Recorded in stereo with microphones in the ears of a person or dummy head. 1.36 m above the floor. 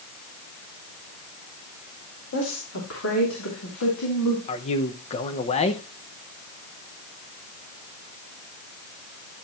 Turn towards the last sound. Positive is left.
turn(degrees=30)  # may be behind; listen again after turning